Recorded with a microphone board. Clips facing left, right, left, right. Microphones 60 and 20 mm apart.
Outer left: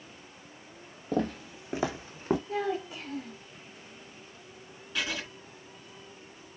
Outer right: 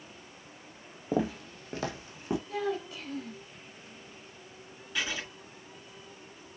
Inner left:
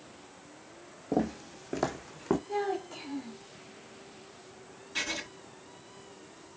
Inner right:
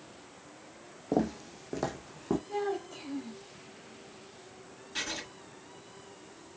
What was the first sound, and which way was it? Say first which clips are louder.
Footsteps: even, even; 15° right (ahead or behind).